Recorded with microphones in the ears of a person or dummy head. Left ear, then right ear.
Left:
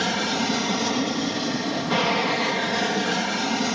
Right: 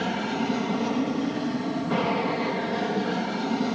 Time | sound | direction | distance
0.0 | an aircraft | 60° left (ahead or behind) | ?